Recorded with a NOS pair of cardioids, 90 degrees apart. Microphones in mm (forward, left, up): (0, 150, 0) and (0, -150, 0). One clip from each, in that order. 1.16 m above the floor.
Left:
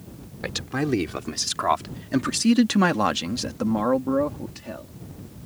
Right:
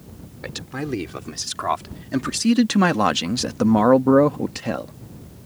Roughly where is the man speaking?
Ahead left.